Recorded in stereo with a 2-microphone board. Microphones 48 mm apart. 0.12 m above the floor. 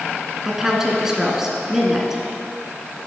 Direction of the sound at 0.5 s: 10° right (ahead or behind).